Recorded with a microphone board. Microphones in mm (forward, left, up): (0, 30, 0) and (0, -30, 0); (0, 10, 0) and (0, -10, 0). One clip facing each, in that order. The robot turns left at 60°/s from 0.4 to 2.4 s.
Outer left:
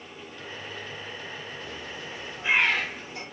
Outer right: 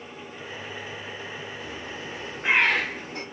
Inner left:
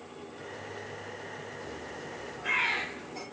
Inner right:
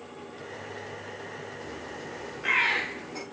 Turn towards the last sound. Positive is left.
turn(degrees=-65)